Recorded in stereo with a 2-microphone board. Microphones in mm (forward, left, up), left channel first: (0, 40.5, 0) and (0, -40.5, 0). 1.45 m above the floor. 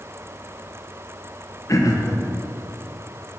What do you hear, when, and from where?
1.7 s throat clearing: 40° left (ahead or behind), 0.9 m